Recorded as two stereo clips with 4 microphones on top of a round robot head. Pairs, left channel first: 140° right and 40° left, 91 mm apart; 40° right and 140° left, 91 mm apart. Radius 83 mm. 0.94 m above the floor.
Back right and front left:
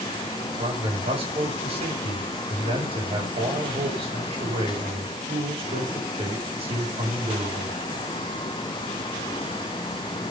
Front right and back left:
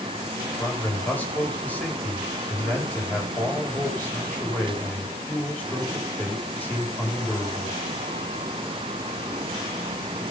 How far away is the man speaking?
About 6 m.